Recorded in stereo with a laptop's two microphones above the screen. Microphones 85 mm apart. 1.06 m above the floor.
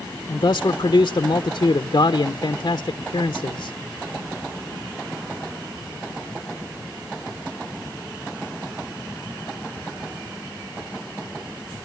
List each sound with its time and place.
0.3 s a man speaking: 50° left (ahead or behind), 0.7 m